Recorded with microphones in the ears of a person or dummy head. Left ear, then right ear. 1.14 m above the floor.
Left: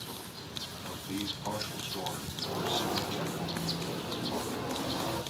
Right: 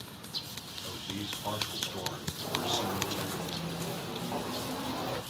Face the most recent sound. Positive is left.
turn(degrees=-55)  # may be behind; listen again after turning